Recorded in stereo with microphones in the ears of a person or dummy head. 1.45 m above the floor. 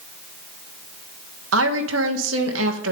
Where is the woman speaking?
85° right, 1.8 m.